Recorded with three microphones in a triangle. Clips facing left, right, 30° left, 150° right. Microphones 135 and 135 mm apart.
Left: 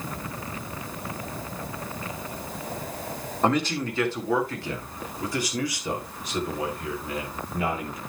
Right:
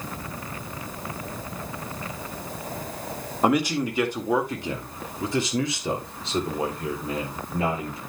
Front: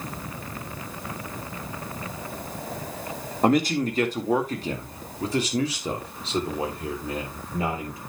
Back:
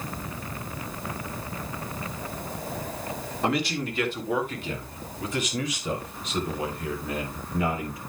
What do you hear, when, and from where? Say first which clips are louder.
3.4 s a man speaking: right 2 dB, front 6 dB; 10° right, 1.9 m; by 8.0 s 30° right, 4 m